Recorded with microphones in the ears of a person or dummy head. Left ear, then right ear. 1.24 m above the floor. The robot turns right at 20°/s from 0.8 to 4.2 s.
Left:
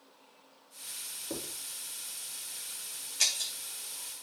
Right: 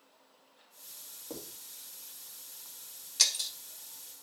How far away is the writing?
About 4 m.